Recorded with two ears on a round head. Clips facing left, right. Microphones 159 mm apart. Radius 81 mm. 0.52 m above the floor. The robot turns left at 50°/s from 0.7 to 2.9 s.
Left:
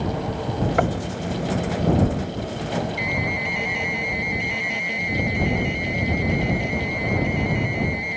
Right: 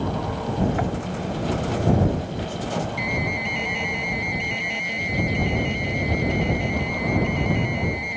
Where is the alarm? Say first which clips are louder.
Even; 5° left (ahead or behind).